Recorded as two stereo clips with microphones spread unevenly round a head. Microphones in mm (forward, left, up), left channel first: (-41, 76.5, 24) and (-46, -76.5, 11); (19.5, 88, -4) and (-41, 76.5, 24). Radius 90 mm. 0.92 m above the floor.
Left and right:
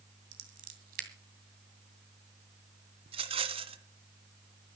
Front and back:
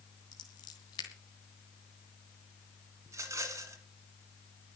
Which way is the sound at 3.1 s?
145° right.